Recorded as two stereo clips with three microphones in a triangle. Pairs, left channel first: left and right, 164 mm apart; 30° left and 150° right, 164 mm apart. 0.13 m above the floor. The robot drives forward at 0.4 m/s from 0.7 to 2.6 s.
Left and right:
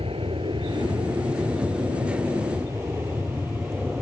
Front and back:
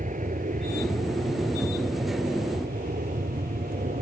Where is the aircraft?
135° right; by 4.0 s 175° right.